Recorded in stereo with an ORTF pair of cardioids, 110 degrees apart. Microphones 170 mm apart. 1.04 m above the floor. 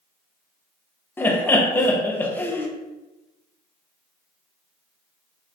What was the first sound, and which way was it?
Laughter, 10° left.